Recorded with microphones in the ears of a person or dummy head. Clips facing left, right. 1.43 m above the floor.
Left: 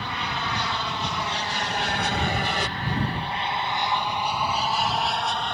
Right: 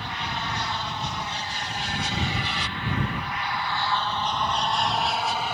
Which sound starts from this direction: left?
An aircraft, at 0.0 s.